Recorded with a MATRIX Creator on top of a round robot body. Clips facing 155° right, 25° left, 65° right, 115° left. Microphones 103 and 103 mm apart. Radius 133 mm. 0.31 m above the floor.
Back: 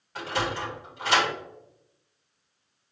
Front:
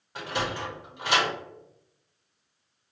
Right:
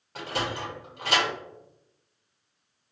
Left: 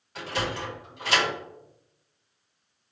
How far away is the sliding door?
About 2.0 m.